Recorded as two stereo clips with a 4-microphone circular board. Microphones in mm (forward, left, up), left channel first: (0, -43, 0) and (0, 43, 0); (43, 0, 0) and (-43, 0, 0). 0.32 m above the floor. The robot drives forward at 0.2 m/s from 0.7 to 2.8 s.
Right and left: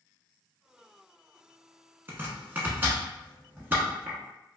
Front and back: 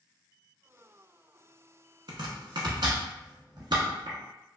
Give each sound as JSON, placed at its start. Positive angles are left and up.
{"t": 2.1, "sound": "chopping", "azimuth_deg": 155, "distance_m": 0.8}